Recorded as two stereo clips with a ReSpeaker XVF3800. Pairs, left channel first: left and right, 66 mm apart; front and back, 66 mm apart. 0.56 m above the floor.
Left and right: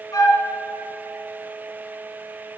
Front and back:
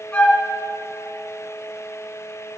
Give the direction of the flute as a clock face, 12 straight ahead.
10 o'clock.